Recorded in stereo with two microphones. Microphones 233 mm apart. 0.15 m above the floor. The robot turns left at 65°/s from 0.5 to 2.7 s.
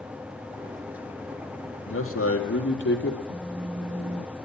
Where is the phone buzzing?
75° right (ahead or behind), 5.5 m.